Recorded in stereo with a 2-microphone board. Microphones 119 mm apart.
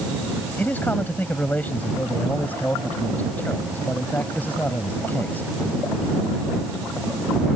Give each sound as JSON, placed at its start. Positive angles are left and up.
{"t": 0.6, "sound": "a man speaking", "side_deg": 15}